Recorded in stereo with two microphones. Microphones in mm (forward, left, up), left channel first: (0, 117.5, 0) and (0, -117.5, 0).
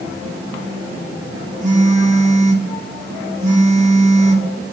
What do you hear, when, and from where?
1.6 s a phone buzzing: 30° right (ahead or behind), 1.9 m